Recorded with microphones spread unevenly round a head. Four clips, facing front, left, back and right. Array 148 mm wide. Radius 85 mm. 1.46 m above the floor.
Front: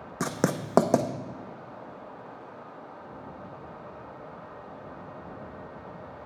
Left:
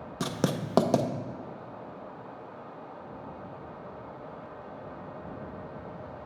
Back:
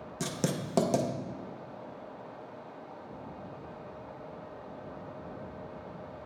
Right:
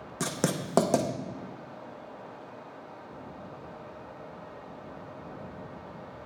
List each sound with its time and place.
0.2 s writing: 5° right, 0.6 m